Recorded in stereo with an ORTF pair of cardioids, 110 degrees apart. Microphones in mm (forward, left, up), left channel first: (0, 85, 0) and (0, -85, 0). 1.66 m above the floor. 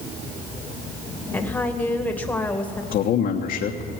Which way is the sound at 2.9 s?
65° left.